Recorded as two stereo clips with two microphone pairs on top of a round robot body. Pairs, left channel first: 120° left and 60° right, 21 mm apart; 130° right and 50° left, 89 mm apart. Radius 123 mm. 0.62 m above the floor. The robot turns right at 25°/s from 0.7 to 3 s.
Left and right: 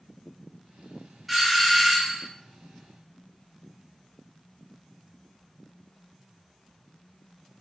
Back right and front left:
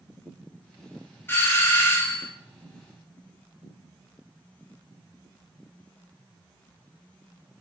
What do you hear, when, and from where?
1.3 s a doorbell: 145° right, 1.1 m; by 2.3 s 120° right, 1.1 m